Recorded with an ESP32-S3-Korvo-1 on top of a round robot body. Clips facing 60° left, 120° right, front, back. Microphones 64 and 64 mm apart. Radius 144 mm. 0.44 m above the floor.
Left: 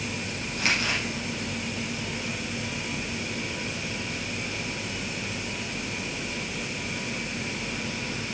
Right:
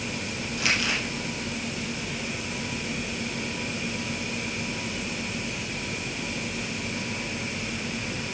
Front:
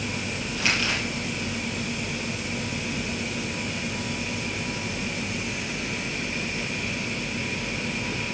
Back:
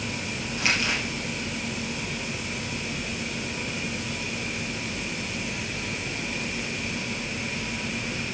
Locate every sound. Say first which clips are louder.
0.6 s crumpling: even, even; 115° left, 3.5 m